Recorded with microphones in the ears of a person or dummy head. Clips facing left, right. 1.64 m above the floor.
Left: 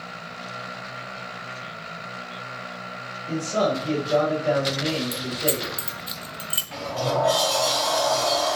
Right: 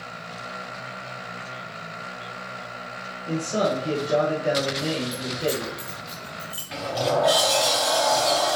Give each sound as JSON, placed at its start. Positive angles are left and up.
{"t": 3.3, "sound": "a man speaking", "side_deg": -15, "distance_m": 1.5}
{"t": 5.1, "sound": "keys jangling", "side_deg": 35, "distance_m": 0.6}
{"t": 6.7, "sound": "a sliding door", "side_deg": -20, "distance_m": 1.4}